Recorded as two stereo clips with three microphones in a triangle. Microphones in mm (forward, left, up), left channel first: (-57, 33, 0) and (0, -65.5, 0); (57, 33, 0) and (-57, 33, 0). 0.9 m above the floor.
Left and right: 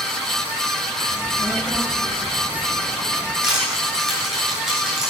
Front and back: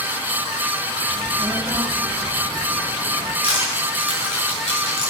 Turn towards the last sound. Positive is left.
turn(degrees=25)